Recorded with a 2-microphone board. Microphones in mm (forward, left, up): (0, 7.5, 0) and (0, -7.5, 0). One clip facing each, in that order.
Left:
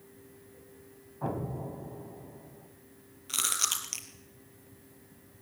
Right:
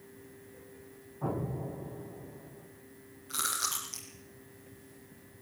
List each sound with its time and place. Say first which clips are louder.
1.2 s an explosion: even; 55° left (ahead or behind), 4 m
3.3 s chewing: left 3 dB; 80° left, 3.5 m